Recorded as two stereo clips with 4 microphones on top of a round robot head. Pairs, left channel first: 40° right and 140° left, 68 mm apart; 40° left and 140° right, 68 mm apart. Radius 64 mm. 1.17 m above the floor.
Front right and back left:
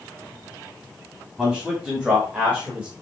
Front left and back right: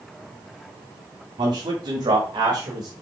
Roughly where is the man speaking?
Behind right.